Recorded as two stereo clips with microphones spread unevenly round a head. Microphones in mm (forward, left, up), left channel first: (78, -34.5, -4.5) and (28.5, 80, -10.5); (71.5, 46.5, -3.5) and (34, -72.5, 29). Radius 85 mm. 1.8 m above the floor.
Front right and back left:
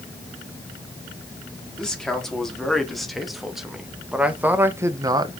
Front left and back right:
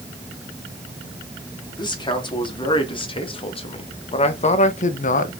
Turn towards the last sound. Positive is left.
turn(degrees=75)